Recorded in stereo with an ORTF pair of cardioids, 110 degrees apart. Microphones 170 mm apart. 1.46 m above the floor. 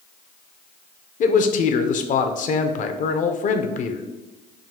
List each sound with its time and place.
1.2 s a man speaking: 50° left, 0.6 m